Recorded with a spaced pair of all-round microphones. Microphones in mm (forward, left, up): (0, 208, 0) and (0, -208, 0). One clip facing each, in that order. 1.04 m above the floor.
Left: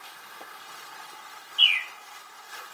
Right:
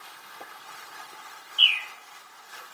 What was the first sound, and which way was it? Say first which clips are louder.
A bird: even; 40° left (ahead or behind).